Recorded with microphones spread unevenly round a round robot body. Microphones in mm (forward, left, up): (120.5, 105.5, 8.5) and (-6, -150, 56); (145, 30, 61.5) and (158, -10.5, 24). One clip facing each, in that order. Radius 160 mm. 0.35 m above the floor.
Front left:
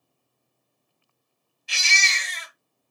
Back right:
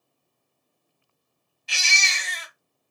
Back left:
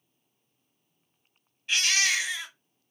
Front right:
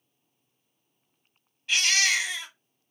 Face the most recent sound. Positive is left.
turn(degrees=-145)